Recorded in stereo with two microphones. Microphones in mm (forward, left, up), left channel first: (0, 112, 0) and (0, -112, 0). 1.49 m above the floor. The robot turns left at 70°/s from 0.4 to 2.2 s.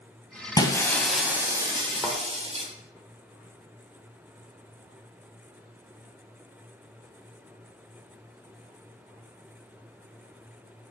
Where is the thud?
10° right (ahead or behind), 1.7 m; by 2.2 s 20° right (ahead or behind), 1.7 m.